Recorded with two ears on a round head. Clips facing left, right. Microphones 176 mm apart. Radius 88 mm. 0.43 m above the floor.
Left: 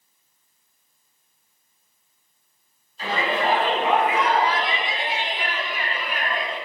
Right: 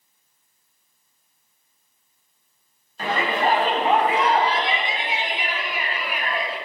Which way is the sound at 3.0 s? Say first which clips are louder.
Right 1 dB; 45° right (ahead or behind).